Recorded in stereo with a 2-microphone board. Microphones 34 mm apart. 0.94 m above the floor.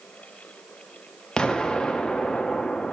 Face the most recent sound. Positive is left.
turn(degrees=25)  # may be behind; listen again after turning